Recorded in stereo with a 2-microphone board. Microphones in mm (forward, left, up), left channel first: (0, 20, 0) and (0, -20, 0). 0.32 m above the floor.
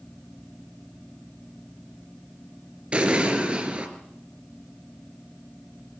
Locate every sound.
2.9 s an explosion: 30° right (ahead or behind), 3.5 m